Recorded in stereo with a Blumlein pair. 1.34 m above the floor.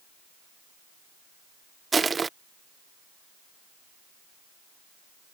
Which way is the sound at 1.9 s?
15° right.